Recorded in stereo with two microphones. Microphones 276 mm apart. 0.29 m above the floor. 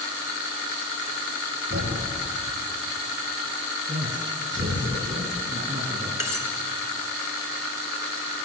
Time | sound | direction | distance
1.7 | a thud | 40° right (ahead or behind) | 9 m
3.9 | a man speaking | 25° right (ahead or behind) | 4 m
6.2 | cutlery clinking | 65° right (ahead or behind) | 2.5 m